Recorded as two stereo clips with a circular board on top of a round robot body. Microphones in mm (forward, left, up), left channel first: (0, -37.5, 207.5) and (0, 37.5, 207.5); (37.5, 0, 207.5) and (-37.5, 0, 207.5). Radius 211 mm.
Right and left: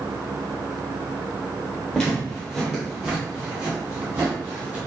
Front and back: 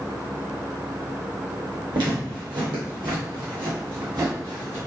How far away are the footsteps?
About 1.7 m.